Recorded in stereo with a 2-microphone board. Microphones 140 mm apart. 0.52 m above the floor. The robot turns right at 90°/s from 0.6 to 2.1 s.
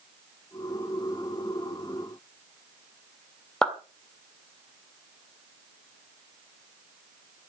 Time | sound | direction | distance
3.6 | a clap | 5° left (ahead or behind) | 1.7 m